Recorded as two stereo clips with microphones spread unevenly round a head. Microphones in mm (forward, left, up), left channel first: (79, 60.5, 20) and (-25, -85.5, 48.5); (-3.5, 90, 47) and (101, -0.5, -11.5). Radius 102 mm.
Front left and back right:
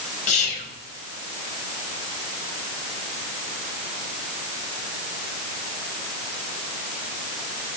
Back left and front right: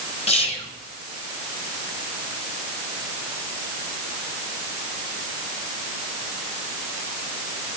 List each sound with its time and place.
0.3 s whispering: 85° left, 1.2 m